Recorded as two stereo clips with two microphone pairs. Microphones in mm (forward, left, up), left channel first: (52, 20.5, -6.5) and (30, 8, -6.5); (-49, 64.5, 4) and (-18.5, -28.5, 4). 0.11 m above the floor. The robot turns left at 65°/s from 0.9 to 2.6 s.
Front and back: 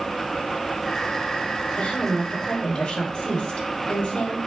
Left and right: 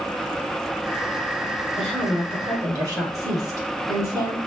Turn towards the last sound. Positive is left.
turn(degrees=-20)